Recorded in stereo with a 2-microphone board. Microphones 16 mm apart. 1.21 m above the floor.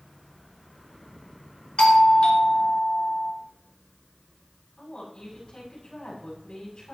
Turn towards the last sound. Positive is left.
turn(degrees=80)